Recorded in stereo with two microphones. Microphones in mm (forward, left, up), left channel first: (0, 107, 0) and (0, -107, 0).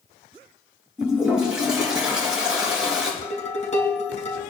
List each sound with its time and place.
1.0 s a toilet flushing: 5° right (ahead or behind), 5.5 m
3.2 s dishes clattering: 35° left (ahead or behind), 3.5 m